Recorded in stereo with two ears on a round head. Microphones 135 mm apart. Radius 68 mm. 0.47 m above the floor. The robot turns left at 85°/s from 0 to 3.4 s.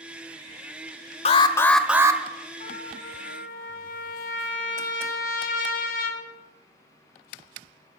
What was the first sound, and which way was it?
An alarm, 45° left.